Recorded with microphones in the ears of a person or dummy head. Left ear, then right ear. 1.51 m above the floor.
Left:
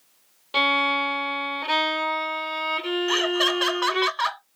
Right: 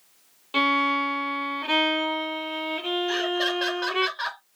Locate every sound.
0.5 s a violin: centre (ahead or behind), 0.9 m
3.1 s laughter: 35° left (ahead or behind), 1.0 m